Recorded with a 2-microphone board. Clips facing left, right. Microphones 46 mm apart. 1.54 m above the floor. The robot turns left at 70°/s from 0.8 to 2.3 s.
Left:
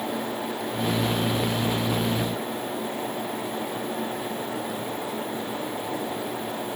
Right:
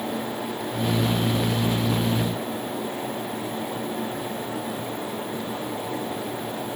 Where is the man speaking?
No man speaking in this recording.